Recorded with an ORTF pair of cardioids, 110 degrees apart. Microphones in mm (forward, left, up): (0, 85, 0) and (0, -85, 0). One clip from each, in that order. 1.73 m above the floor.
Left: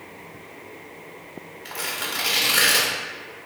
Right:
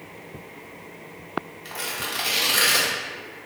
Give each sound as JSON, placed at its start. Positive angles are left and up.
{"t": 1.6, "sound": "tearing paper", "azimuth_deg": 5, "distance_m": 0.7}